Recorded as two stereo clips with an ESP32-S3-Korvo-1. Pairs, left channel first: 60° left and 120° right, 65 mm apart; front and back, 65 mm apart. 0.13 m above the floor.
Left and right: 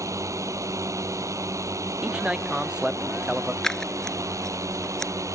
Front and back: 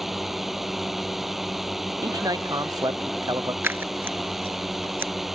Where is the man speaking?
165° left.